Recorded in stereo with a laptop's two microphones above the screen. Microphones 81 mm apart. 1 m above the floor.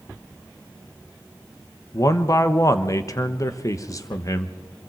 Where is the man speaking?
40° left (ahead or behind), 1.1 m.